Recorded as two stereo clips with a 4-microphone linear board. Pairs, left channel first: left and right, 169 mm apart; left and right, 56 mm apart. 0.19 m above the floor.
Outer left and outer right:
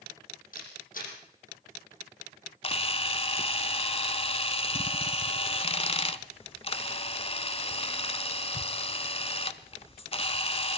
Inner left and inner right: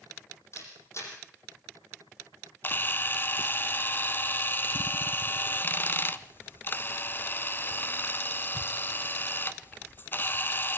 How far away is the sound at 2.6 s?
About 0.7 m.